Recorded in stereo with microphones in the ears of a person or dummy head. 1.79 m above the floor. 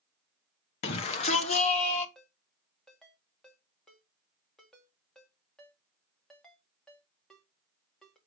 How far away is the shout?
About 0.8 m.